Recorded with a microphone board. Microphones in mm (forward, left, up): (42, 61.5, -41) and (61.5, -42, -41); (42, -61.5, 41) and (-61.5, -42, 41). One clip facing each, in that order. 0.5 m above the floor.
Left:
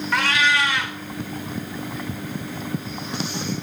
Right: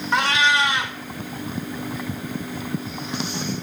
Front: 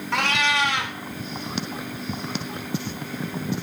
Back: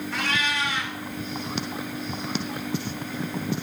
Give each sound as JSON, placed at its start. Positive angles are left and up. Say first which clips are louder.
{"t": 0.1, "sound": "a cat meowing", "louder": "right 2 dB, front 6 dB", "azimuth_deg": -15, "distance_m": 0.7}